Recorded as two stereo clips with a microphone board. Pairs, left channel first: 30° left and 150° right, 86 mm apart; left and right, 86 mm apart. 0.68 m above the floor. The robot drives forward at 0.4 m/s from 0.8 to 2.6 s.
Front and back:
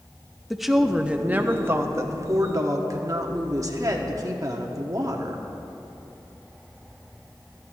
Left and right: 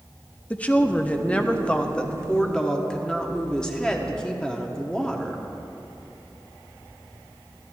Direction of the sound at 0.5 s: 125° left.